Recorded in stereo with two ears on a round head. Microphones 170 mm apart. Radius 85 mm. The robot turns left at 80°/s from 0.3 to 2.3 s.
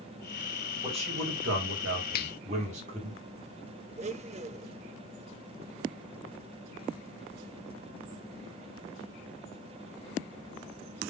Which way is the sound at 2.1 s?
50° left (ahead or behind).